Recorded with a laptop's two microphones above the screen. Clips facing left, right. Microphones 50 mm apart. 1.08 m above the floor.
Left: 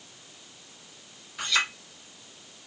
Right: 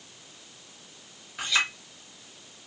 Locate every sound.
1.4 s a clink: 10° right (ahead or behind), 1.1 m